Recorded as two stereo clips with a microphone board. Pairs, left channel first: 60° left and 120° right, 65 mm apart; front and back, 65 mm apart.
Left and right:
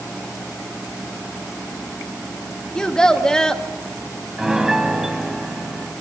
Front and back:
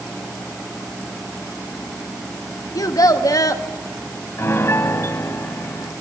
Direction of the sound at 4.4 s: 40° right.